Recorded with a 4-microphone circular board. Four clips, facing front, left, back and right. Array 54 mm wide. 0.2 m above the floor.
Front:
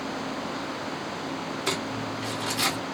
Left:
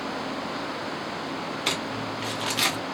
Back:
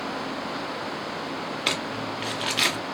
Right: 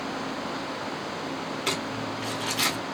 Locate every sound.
1.7 s crumpling: 165° left, 0.9 m